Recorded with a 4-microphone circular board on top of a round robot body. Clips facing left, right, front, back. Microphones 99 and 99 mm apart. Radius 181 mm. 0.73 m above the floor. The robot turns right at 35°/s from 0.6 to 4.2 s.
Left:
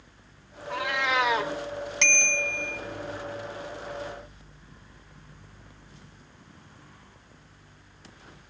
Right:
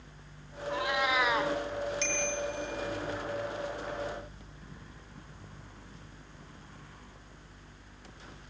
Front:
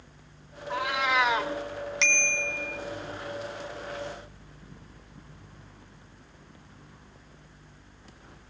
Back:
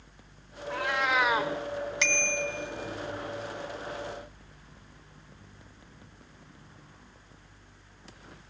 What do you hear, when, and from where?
0.7 s a cat meowing: 75° left, 0.6 m; by 1.5 s 100° left, 0.6 m
2.0 s a bicycle bell: 90° left, 2.5 m; by 2.8 s 120° left, 2.5 m